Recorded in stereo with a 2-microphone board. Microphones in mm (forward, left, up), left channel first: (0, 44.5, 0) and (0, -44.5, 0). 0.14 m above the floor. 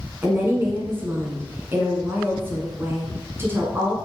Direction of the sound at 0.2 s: 25° right (ahead or behind).